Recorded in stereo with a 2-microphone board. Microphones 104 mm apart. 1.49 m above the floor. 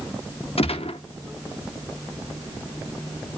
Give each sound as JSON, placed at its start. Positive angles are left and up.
{"t": 0.6, "sound": "a gunshot", "side_deg": 80, "distance_m": 1.0}